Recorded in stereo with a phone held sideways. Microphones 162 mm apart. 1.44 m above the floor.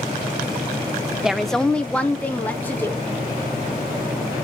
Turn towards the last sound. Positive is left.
turn(degrees=10)  # may be behind; listen again after turning